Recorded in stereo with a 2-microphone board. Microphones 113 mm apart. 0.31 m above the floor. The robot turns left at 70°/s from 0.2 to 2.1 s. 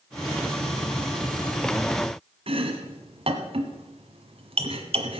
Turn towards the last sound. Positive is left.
turn(degrees=-60)  # may be behind; listen again after turning